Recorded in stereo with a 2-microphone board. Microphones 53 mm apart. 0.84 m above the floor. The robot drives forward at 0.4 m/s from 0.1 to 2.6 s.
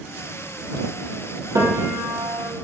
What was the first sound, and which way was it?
A piano, 80° right.